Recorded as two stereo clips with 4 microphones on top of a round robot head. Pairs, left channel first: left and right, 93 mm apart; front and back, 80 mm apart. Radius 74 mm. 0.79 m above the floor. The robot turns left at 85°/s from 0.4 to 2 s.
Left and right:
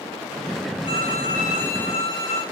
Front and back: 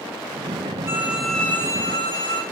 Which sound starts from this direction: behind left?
A violin, at 0.8 s.